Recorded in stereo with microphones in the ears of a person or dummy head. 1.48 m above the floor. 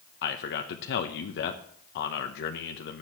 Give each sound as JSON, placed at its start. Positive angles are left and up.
{"t": 0.2, "sound": "a man speaking", "side_deg": 60, "distance_m": 0.9}